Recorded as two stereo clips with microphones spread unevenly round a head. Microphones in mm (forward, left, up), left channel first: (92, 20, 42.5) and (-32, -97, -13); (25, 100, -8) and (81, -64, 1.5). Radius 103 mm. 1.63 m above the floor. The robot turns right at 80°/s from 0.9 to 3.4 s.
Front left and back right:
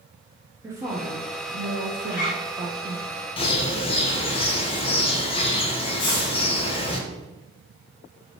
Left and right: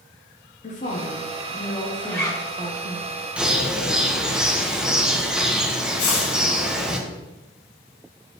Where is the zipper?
20° left, 1.3 m; by 2.4 s 50° left, 1.3 m.